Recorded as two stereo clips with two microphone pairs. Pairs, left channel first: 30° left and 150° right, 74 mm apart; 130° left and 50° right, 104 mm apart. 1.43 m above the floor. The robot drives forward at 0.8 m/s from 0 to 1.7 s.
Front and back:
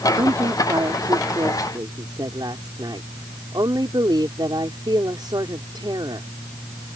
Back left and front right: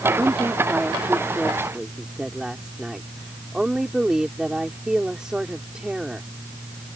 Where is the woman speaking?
120° right; by 6.3 s 135° right.